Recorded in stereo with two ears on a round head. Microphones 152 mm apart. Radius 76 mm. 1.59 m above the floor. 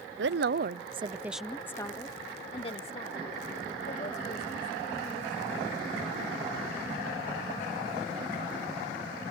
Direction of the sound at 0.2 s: 75° right (ahead or behind).